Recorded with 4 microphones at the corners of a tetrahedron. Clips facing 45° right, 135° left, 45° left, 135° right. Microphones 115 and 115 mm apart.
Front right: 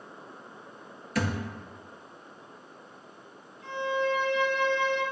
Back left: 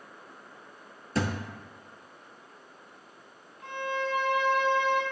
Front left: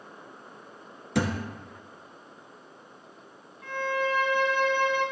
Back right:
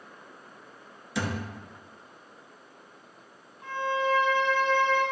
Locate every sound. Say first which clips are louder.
1.1 s a thud: even, front left 4 dB; 75° left, 1.4 m
3.6 s a violin: front right 4 dB, back right 1 dB; 160° left, 2.5 m